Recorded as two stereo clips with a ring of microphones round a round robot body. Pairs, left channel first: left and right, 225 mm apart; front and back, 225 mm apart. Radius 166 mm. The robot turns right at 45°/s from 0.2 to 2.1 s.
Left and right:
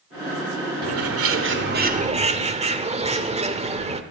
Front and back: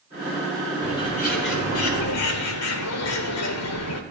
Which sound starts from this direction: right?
A bird, at 0.8 s.